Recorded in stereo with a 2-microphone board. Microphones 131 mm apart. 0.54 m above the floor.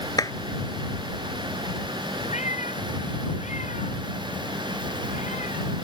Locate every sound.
0.2 s a clap: 25° left (ahead or behind)
2.3 s a cat meowing: 60° left (ahead or behind)